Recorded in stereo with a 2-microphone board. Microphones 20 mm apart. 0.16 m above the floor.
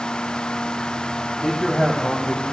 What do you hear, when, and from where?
1.4 s a man speaking: 5° right (ahead or behind), 7.5 m; by 2.4 s centre (ahead or behind), 7 m